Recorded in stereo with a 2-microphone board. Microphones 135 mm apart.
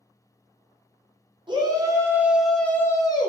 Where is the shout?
35° right (ahead or behind), 0.9 m; by 3.3 s 35° left (ahead or behind), 0.8 m.